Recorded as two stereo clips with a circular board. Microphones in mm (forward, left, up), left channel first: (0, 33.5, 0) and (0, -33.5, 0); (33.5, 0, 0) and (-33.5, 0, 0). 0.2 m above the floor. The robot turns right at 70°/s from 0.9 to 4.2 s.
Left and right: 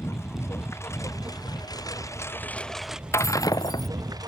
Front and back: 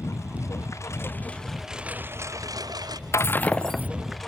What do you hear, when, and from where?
0.0 s a lawn mower: 45° left; by 4.3 s 85° right
3.1 s breaking glass: 45° left; by 3.9 s 95° left